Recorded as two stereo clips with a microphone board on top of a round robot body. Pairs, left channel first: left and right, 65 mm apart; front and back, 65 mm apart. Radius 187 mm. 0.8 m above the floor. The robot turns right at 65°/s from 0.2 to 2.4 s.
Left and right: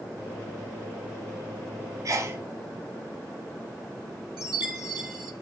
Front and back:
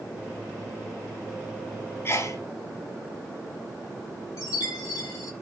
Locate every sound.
2.0 s a sneeze: 55° right, 2 m; by 2.4 s 30° right, 2 m
4.4 s a chime: 15° right, 2.5 m